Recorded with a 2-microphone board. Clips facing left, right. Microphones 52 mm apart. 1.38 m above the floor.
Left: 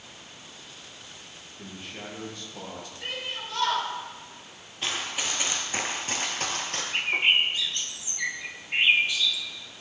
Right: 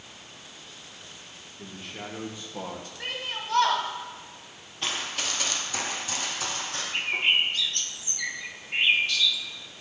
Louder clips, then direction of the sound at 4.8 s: Even; centre (ahead or behind).